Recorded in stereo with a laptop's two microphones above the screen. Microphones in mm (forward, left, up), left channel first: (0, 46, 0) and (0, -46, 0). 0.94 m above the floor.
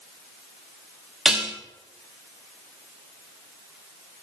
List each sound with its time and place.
1.2 s dishes clattering: 5° right (ahead or behind), 1.1 m